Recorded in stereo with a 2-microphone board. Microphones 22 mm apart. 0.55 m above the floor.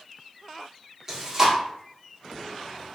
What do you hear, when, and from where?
1.1 s chewing: 25° right (ahead or behind), 1.5 m